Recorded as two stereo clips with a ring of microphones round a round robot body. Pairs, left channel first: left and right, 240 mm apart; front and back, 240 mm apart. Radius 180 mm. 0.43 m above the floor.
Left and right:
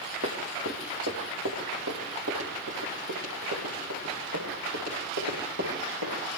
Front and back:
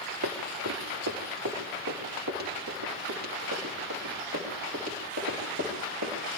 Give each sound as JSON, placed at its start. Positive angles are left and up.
{"t": 0.2, "sound": "running footsteps", "azimuth_deg": -155, "distance_m": 4.5}